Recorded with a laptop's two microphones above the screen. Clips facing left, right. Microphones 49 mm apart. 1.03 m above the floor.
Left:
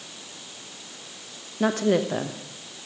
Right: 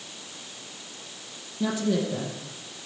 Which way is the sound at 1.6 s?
55° left (ahead or behind).